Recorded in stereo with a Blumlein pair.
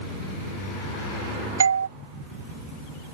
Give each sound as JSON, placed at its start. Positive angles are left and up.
{"t": 1.6, "sound": "a doorbell", "azimuth_deg": -70}